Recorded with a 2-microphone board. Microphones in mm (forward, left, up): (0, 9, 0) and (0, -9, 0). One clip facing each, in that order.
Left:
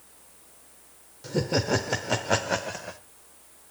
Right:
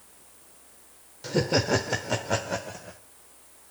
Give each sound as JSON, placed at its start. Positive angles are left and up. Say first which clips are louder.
{"t": 1.2, "sound": "laughter", "louder": "right 2 dB", "side_deg": -25, "distance_m": 0.9}